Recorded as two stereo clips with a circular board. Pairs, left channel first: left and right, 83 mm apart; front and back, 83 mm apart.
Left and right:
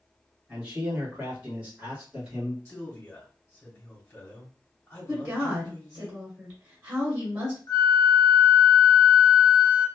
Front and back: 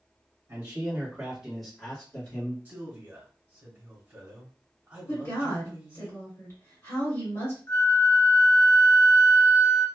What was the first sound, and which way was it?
A man speaking, 155° right.